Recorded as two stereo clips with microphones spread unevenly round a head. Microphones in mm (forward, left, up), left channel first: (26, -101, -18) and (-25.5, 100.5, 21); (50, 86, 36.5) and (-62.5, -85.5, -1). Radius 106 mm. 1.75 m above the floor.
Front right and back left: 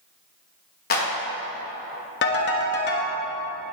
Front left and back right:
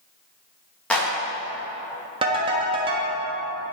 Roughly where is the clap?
Ahead right.